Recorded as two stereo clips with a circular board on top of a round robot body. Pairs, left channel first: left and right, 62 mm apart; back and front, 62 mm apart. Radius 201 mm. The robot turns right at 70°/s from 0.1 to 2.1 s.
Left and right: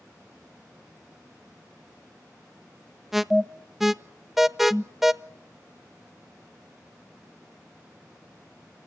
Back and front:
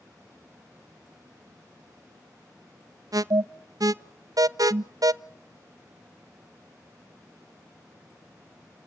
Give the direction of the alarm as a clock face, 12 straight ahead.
12 o'clock.